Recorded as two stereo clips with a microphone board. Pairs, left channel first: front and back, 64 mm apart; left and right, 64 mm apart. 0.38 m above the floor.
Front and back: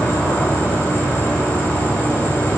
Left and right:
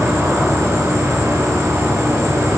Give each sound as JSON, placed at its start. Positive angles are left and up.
{"t": 0.0, "sound": "an insect", "azimuth_deg": -55, "distance_m": 2.5}